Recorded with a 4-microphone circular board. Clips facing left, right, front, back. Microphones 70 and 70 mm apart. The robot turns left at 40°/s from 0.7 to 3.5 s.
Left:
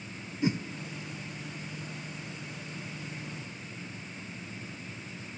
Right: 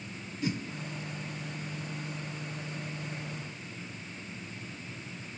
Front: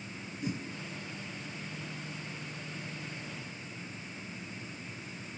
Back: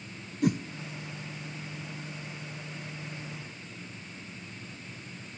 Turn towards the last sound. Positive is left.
turn(degrees=45)